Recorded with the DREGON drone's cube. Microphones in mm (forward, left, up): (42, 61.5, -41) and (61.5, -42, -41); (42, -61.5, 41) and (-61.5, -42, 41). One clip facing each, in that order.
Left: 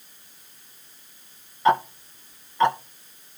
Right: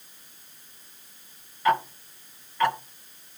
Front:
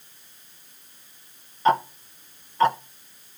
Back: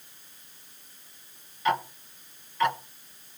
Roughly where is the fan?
No fan in this recording.